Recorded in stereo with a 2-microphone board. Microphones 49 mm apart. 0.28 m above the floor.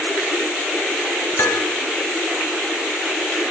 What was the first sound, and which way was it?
Dishes clattering, 65° left (ahead or behind).